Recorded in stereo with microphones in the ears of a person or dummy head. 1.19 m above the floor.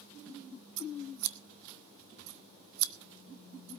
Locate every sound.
0.8 s scissors: 80° right, 1.1 m